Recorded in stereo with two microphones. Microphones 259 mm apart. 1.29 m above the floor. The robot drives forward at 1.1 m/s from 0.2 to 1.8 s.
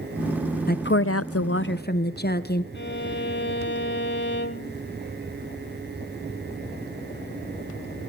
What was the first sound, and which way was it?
A woman speaking, 35° left (ahead or behind).